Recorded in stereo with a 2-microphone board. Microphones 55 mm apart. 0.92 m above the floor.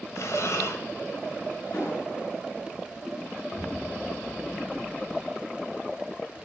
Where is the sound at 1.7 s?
70° left (ahead or behind), 6.5 m.